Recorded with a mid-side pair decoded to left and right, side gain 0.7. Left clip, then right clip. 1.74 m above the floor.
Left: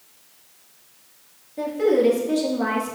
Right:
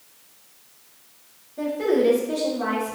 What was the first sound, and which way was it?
A woman speaking, 25° left.